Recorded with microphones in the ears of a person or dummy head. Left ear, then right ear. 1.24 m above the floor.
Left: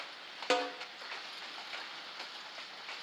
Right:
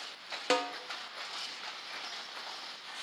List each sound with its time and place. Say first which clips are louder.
0.5 s a snare drum: right 1 dB; centre (ahead or behind), 0.9 m